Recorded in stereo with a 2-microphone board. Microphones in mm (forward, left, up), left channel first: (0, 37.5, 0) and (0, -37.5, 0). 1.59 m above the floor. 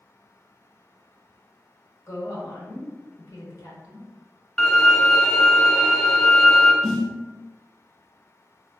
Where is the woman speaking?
45° left (ahead or behind), 1.2 m.